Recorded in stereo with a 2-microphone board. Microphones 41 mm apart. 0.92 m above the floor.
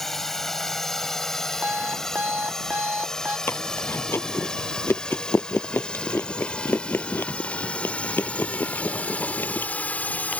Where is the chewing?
65° left (ahead or behind).